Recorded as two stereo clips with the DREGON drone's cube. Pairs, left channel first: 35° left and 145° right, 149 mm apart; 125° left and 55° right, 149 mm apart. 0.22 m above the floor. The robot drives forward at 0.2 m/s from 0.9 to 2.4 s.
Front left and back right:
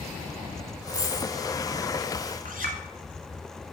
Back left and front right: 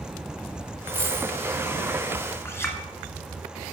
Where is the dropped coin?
65° right, 2.5 m.